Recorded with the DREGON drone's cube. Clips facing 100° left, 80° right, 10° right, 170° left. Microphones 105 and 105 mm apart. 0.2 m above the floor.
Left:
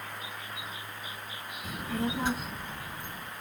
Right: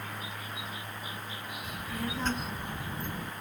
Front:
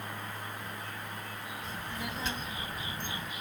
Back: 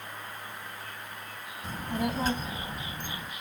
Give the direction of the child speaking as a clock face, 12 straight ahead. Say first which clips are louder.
Left 5 dB, back 10 dB; 7 o'clock.